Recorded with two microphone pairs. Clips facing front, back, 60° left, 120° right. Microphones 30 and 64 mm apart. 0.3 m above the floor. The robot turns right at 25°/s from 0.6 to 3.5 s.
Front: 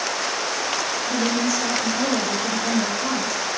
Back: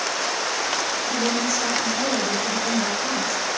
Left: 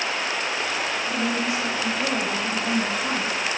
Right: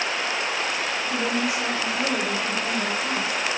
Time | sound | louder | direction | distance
1.1 | a woman speaking | front 2 dB, right 1 dB | 90° right | 0.9 m